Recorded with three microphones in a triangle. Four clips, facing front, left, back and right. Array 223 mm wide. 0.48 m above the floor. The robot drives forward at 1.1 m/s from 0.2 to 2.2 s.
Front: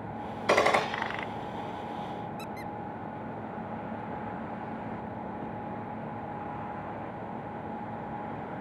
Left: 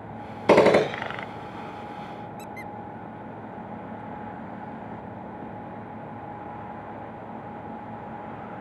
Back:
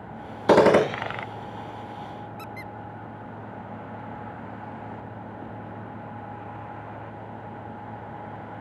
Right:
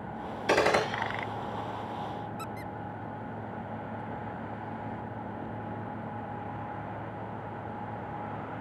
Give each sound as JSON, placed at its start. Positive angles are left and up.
{"t": 0.5, "sound": "a gunshot", "azimuth_deg": 125}
{"t": 2.4, "sound": "a squeak", "azimuth_deg": -165}